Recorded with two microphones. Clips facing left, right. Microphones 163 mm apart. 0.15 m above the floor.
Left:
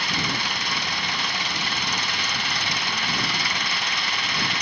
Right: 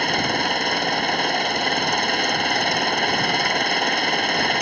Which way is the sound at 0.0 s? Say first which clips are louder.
Right 7 dB; 50° right (ahead or behind).